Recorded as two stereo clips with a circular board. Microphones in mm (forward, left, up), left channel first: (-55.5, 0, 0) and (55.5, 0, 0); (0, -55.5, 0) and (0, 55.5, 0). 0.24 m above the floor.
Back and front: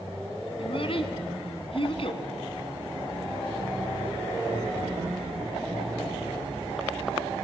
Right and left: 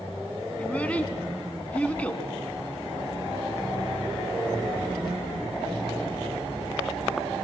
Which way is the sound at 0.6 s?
165° right.